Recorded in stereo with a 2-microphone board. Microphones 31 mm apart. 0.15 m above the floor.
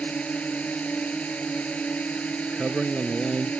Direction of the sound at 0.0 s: 45° left (ahead or behind).